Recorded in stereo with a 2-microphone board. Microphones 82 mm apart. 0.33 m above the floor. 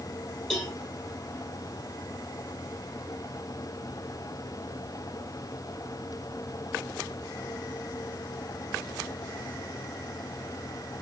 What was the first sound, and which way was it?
A cowbell, 5° left (ahead or behind).